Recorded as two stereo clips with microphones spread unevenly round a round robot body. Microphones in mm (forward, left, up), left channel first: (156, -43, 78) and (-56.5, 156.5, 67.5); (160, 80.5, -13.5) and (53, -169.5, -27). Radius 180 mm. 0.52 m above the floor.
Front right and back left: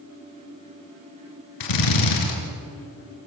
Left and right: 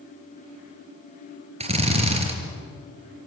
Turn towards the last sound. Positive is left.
turn(degrees=-45)